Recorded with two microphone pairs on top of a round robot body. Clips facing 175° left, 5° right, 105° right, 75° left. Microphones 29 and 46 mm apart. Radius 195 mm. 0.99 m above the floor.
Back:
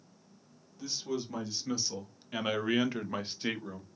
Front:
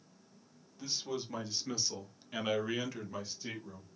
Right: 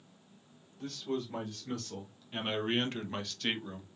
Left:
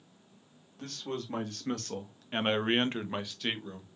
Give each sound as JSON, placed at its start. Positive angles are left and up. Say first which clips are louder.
{"t": 0.8, "sound": "a man speaking", "louder": "back 2 dB, right 2 dB", "azimuth_deg": 75, "distance_m": 2.0}